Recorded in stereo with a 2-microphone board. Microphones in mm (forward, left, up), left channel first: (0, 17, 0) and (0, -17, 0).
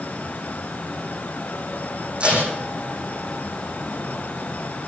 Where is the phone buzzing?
I don't hear a phone buzzing.